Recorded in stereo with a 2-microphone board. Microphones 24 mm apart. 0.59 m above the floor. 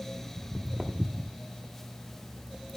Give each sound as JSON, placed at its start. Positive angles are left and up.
{"t": 0.4, "sound": "footsteps", "side_deg": -45, "distance_m": 1.0}